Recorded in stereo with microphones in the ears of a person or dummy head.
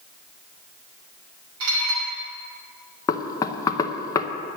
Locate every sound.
1.6 s dishes clattering: 85° right, 5.5 m
3.1 s knocking: 20° left (ahead or behind), 0.8 m